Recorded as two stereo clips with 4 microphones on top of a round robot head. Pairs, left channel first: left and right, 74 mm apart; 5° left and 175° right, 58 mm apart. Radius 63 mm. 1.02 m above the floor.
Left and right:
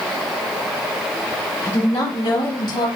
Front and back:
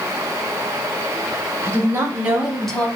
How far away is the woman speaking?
About 2.0 m.